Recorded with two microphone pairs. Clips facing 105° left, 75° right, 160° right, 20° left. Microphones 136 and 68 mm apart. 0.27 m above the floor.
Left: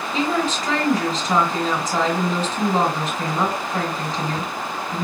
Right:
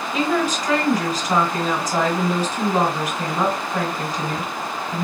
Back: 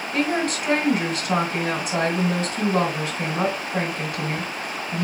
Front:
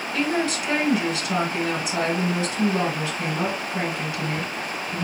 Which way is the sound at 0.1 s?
155° right.